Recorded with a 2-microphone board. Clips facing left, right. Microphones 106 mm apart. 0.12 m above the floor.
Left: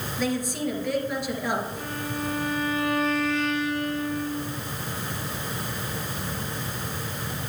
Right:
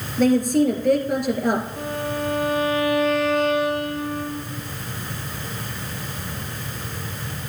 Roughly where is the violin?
Right.